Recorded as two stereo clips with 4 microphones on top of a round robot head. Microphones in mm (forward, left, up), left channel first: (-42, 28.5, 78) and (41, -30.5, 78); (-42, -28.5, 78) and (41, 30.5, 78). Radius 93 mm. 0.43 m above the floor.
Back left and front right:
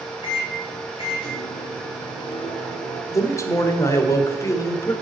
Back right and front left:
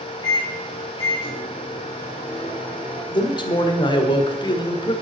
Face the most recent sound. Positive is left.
turn(degrees=-165)